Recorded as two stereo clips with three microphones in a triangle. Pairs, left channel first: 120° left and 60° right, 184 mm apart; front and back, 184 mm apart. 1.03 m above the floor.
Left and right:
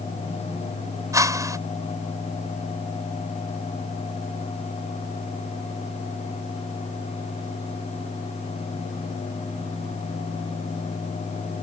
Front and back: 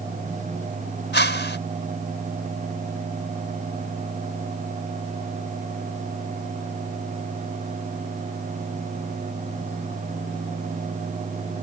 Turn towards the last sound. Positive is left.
turn(degrees=10)